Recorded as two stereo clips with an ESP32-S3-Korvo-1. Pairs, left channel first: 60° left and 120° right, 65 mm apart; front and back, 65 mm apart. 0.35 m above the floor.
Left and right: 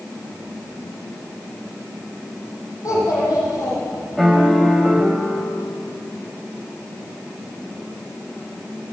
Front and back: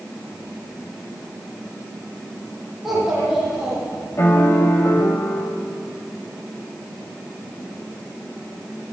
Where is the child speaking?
95° left, 10 m.